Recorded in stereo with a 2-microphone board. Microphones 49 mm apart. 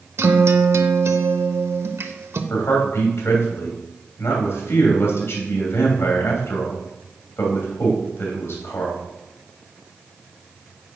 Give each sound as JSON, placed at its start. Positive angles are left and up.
{"t": 0.2, "sound": "a guitar", "side_deg": -60, "distance_m": 0.7}
{"t": 2.5, "sound": "a man speaking", "side_deg": 60, "distance_m": 2.5}